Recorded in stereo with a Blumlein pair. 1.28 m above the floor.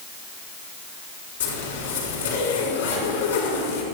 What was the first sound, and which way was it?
A zipper, 65° left.